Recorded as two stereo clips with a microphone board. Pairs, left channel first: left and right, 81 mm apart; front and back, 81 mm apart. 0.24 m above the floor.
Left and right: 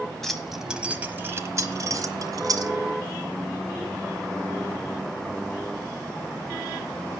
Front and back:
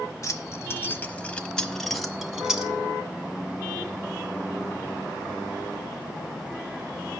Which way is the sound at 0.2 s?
10° left.